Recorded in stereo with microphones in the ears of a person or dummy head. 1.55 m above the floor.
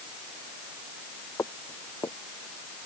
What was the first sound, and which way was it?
Footsteps, 15° left (ahead or behind).